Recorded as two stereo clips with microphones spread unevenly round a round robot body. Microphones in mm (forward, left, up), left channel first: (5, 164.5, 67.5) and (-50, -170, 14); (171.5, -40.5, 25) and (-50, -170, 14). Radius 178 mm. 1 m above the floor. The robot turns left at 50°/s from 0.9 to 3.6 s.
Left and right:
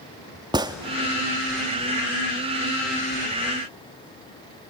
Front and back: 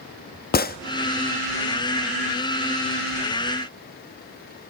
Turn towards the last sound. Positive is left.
turn(degrees=-150)